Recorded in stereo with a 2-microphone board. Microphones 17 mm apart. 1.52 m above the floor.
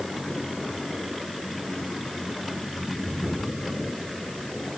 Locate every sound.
Only background noise.